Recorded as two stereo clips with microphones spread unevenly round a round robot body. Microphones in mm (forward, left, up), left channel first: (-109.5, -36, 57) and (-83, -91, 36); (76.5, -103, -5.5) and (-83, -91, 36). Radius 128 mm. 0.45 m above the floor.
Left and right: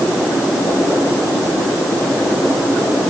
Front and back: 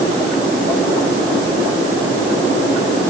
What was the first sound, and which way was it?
Only background noise.